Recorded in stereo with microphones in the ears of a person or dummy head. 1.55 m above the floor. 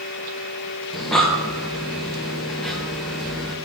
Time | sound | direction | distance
0.9 | breathing | centre (ahead or behind) | 0.8 m